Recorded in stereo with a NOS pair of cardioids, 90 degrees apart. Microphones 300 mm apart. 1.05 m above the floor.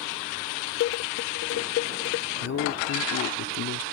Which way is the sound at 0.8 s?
50° left.